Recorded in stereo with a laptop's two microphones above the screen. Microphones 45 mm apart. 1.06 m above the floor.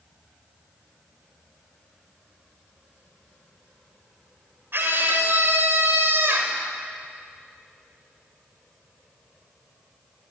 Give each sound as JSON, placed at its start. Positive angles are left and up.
{"t": 4.7, "sound": "a scream", "side_deg": -55, "distance_m": 4.0}